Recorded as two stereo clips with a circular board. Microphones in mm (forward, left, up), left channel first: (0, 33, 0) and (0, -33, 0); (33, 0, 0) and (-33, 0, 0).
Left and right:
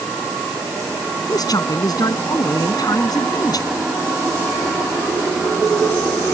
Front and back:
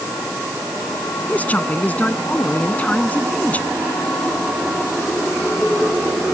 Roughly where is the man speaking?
Left.